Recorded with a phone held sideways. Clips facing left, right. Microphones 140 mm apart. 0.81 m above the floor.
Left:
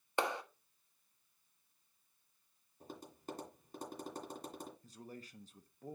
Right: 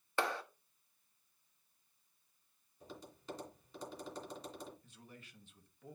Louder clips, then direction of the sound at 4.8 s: Left 7 dB; 35° left (ahead or behind).